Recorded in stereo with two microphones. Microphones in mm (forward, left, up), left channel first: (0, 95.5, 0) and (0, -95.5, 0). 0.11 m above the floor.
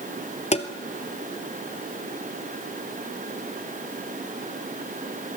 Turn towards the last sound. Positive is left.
turn(degrees=35)  # may be behind; listen again after turning